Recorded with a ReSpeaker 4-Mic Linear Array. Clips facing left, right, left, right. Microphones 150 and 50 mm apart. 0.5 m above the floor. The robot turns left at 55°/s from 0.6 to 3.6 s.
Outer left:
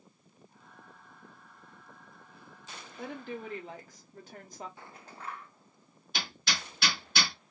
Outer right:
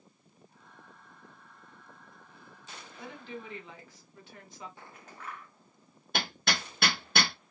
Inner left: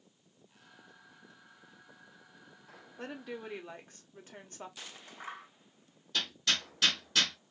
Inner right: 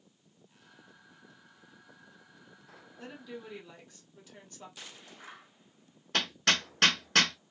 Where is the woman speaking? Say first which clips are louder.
Outer left 4 dB, inner left 3 dB; 90° left, 1.5 m; by 4.7 s 55° left, 1.5 m.